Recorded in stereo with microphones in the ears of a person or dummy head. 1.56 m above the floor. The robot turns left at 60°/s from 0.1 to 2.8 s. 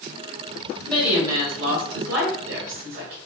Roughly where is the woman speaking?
Ahead.